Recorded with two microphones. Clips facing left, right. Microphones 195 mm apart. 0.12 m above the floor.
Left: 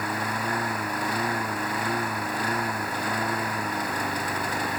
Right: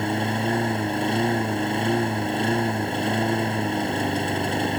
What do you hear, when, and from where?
0.0 s a lawn mower: 25° right (ahead or behind)